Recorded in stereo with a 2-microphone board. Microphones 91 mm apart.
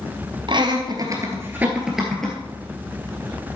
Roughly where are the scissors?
No scissors in this recording.